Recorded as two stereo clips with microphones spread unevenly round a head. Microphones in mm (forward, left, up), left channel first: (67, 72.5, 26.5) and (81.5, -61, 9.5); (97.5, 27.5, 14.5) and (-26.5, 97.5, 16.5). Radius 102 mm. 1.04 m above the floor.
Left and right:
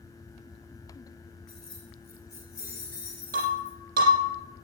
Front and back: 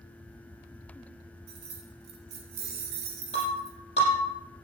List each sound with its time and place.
1.5 s keys jangling: 175° right, 2.5 m; by 3.8 s 160° left, 3 m
3.3 s breaking glass: 90° right, 6.5 m